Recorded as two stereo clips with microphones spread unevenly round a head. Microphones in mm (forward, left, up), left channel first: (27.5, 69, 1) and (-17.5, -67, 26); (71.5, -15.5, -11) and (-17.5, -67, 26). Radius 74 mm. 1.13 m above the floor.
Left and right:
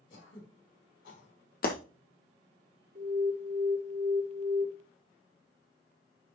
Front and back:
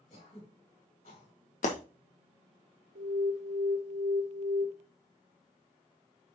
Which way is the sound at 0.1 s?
70° left.